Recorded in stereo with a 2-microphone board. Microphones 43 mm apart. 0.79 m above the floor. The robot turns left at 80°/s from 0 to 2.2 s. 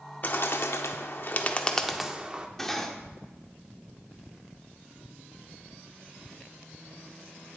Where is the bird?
45° left (ahead or behind), 0.7 m; by 2.5 s 25° right (ahead or behind), 0.7 m.